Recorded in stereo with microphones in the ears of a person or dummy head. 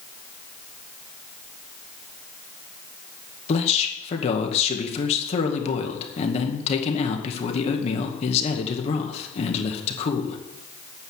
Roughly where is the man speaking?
Left.